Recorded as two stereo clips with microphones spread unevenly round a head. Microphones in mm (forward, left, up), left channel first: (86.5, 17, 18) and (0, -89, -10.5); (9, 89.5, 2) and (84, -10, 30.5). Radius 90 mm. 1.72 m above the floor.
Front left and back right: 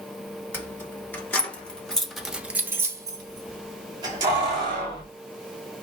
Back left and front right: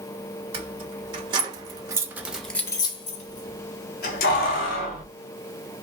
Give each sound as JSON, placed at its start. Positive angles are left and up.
{"t": 0.5, "sound": "keys jangling", "azimuth_deg": -20, "distance_m": 1.9}